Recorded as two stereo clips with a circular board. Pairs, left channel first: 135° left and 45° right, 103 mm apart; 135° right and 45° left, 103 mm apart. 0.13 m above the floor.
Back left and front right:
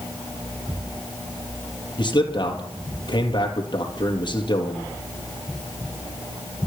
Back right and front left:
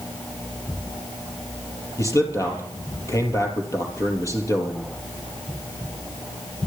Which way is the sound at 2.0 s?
170° left.